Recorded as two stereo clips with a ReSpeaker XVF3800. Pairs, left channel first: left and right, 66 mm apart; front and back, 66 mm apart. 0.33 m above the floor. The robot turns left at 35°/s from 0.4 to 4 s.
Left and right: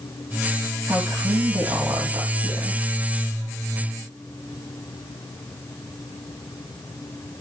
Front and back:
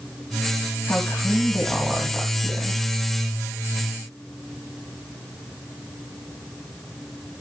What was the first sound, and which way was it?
A woman speaking, 55° right.